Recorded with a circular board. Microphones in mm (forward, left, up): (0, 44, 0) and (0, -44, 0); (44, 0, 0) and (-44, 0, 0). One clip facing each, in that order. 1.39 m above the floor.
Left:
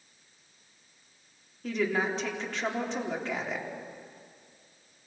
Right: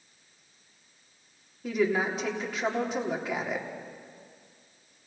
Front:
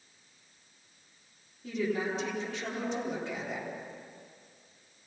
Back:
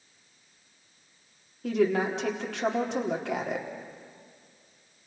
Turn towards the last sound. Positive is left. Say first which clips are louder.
# right 2 dB, back 7 dB
turn(degrees=-175)